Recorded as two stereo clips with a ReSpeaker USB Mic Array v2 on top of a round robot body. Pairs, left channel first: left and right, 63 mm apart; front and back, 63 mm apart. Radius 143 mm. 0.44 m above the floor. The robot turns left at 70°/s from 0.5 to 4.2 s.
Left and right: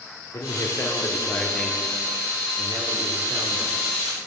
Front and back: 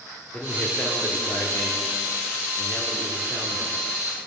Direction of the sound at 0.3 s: 70° left.